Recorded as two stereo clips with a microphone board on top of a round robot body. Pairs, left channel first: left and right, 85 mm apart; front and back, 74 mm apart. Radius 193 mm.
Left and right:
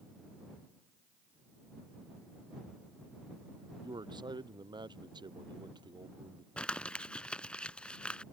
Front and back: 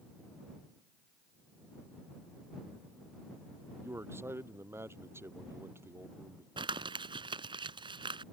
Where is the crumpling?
170° left.